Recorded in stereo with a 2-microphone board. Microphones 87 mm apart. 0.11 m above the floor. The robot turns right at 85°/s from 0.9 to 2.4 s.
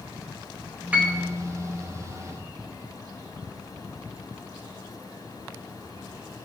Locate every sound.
0.9 s a piano: 15° right (ahead or behind), 1.2 m; by 1.2 s 35° right (ahead or behind), 1.2 m